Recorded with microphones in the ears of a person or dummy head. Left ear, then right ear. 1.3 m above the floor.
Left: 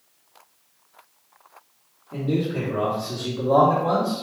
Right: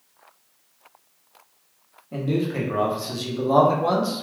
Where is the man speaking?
60° right (ahead or behind), 1.1 m; by 4.2 s 55° right (ahead or behind), 1.0 m.